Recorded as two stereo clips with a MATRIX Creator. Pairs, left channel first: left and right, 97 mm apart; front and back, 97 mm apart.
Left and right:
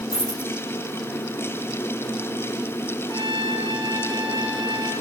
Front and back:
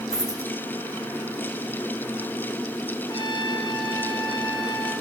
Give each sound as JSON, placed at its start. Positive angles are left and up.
{"t": 0.1, "sound": "a dropped coin", "azimuth_deg": 85, "distance_m": 6.0}
{"t": 3.1, "sound": "a trumpet", "azimuth_deg": 40, "distance_m": 5.0}